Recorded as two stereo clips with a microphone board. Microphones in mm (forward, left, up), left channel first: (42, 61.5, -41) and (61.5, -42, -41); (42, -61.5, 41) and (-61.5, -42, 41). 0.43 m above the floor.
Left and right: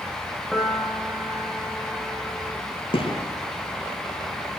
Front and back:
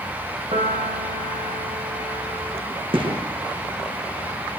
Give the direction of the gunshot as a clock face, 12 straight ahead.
7 o'clock.